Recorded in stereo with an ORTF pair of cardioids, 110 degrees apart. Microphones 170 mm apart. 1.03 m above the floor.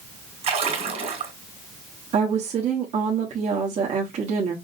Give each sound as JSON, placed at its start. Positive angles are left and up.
{"t": 0.4, "sound": "a splash", "azimuth_deg": -45, "distance_m": 2.5}
{"t": 2.1, "sound": "a woman speaking", "azimuth_deg": -45, "distance_m": 1.3}